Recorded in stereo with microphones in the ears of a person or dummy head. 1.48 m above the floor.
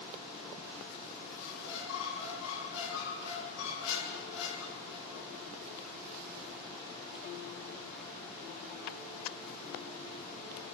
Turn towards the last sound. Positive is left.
turn(degrees=75)  # may be behind; listen again after turning